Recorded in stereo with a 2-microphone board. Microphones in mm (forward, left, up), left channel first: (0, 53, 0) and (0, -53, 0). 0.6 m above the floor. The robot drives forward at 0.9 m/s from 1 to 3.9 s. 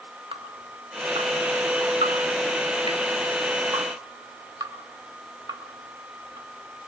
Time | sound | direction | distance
0.3 | dripping | 60° right (ahead or behind) | 1.8 m